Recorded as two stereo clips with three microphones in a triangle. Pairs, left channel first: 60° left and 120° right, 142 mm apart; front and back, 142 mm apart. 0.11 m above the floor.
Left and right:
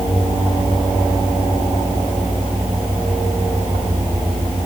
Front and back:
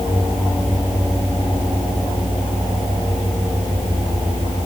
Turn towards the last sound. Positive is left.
No sound to turn to.